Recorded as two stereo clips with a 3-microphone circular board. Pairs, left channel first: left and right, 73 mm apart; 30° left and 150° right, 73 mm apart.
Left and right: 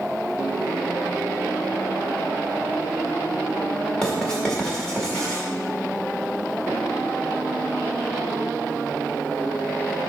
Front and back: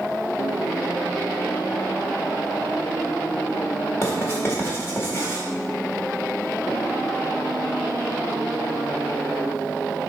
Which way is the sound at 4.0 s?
20° left.